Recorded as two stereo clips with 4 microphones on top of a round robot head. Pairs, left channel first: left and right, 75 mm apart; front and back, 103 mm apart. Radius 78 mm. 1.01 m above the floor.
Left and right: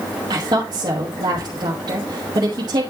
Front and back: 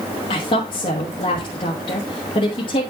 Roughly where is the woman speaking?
Ahead right.